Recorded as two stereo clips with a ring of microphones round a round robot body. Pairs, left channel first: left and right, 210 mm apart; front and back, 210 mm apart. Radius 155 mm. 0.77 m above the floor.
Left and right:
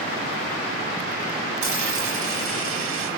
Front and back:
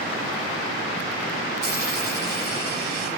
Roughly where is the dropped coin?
Right.